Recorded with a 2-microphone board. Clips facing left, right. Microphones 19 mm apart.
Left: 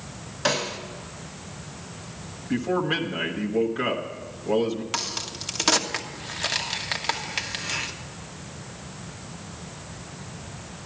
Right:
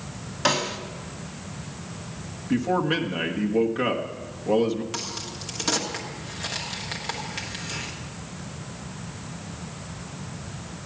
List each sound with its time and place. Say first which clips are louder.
0.5 s a snare drum: right 1 dB; 15° right (ahead or behind), 1.3 m
2.5 s a man speaking: right 1 dB; 10° right (ahead or behind), 1.3 m
4.9 s a crack: left 3 dB; 30° left (ahead or behind), 1.0 m